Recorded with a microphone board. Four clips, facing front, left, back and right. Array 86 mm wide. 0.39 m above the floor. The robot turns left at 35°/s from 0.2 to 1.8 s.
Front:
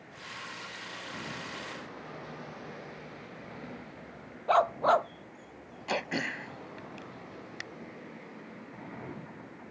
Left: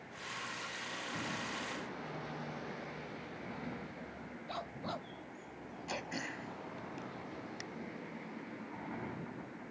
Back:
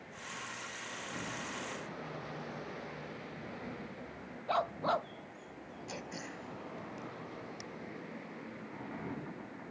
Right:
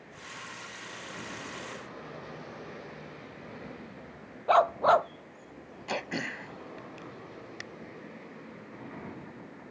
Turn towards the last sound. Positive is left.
turn(degrees=-30)